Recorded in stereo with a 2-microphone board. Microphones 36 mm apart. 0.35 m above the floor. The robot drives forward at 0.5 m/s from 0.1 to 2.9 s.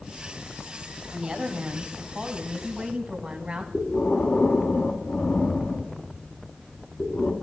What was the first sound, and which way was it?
A woman speaking, 20° right (ahead or behind).